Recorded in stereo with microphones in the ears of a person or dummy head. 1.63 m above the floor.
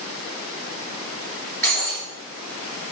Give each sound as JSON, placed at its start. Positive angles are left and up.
{"t": 1.6, "sound": "breaking glass", "side_deg": 10, "distance_m": 3.5}